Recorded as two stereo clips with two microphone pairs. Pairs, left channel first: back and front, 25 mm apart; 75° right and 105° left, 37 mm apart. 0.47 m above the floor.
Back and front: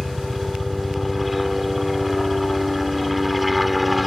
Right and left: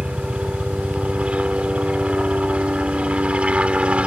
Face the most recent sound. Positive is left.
turn(degrees=85)